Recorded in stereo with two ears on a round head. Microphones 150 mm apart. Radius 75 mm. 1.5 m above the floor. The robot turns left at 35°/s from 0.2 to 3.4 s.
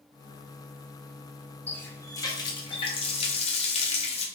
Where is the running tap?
165° left, 0.6 m; by 4.3 s 100° left, 0.6 m.